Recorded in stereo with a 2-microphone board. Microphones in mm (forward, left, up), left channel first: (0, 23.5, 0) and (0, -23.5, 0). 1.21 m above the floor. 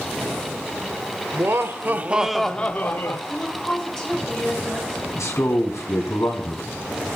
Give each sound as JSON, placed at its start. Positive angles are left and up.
{"t": 1.3, "sound": "laughter", "side_deg": -55, "distance_m": 1.1}
{"t": 3.3, "sound": "a woman speaking", "side_deg": 15, "distance_m": 5.5}
{"t": 5.2, "sound": "a man speaking", "side_deg": 80, "distance_m": 3.0}